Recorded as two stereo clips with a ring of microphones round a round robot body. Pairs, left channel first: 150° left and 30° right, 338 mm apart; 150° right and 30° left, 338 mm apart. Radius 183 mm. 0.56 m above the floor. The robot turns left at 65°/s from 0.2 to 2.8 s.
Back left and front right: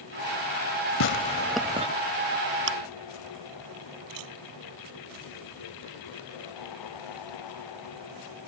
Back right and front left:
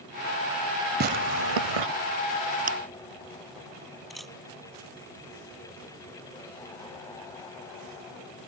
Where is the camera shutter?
60° right.